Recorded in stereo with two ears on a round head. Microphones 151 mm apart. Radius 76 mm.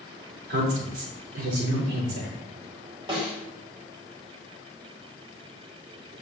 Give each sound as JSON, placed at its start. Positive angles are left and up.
{"t": 0.5, "sound": "a woman speaking", "side_deg": -65, "distance_m": 4.5}
{"t": 3.1, "sound": "a snare drum", "side_deg": -30, "distance_m": 2.5}